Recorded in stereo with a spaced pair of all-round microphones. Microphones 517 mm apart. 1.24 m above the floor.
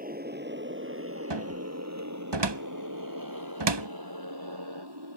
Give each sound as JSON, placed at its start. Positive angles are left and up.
{"t": 0.0, "sound": "a motorcycle", "side_deg": -15}
{"t": 1.3, "sound": "a cupboard door", "side_deg": -50}